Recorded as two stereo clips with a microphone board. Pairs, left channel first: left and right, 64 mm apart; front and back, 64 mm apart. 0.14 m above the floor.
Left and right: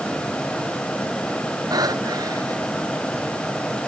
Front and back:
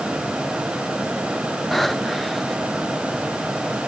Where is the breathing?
90° right.